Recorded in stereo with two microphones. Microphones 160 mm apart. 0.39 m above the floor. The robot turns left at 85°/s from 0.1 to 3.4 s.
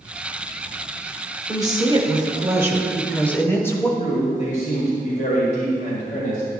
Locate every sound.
1.5 s a woman speaking: 20° right (ahead or behind), 1.1 m; by 3.9 s 15° left (ahead or behind), 1.1 m
4.0 s a man speaking: 50° left (ahead or behind), 1.7 m